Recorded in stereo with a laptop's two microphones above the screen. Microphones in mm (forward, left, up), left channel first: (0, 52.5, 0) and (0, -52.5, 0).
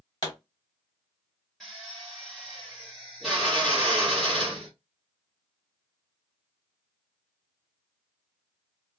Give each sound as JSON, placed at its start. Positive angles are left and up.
{"t": 0.2, "sound": "a pop", "side_deg": 45, "distance_m": 1.3}
{"t": 1.6, "sound": "a drill", "side_deg": 0, "distance_m": 1.4}